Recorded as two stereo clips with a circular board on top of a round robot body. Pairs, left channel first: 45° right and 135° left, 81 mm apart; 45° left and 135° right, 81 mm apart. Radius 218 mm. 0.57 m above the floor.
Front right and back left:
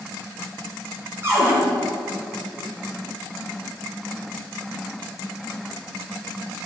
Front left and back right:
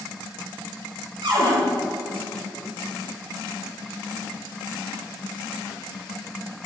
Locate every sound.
1.2 s a cupboard door: 165° right, 3 m